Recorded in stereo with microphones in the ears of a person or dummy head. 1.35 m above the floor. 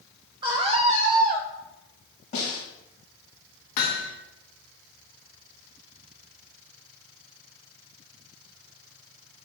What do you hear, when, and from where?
0.4 s a scream: 20° right (ahead or behind), 1.3 m; by 1.5 s 50° right (ahead or behind), 0.9 m
2.3 s a snare drum: 35° left (ahead or behind), 3 m
3.8 s hammering: 45° left (ahead or behind), 0.9 m